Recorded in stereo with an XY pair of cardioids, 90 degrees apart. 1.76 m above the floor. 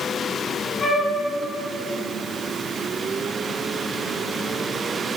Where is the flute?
45° left, 1.8 m.